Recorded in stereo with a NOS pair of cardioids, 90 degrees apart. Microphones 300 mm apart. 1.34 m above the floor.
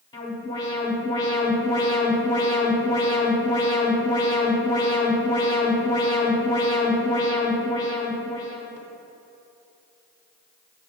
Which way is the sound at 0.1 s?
15° left.